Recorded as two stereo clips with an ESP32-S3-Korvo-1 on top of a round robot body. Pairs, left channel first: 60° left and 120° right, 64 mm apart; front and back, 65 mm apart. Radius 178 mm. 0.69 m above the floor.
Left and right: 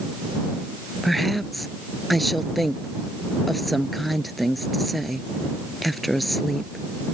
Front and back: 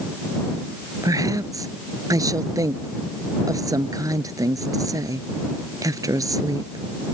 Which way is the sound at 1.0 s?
150° left.